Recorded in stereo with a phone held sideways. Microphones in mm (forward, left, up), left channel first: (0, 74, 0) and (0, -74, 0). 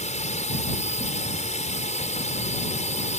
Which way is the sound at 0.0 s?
50° left (ahead or behind).